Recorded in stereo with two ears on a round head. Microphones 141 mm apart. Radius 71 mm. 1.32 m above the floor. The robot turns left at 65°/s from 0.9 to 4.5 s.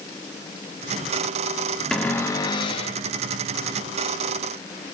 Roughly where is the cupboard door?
Behind.